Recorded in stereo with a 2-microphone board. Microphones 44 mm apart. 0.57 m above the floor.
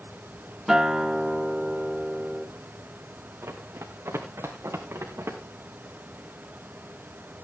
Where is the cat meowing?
No cat meowing in this recording.